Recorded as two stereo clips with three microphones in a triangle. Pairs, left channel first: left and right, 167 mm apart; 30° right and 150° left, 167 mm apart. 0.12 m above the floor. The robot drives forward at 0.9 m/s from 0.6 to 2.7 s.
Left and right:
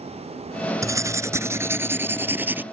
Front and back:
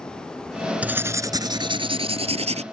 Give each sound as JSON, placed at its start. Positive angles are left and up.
{"t": 0.8, "sound": "writing", "azimuth_deg": -140}